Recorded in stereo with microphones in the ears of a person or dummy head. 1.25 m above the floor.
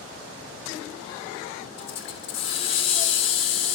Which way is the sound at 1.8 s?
35° left (ahead or behind).